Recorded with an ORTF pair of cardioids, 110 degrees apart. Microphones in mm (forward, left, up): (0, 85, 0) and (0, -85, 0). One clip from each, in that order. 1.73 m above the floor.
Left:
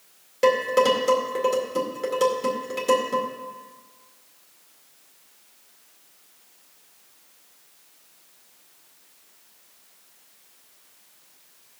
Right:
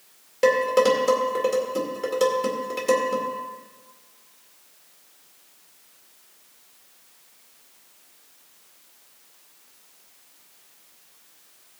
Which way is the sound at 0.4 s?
Straight ahead.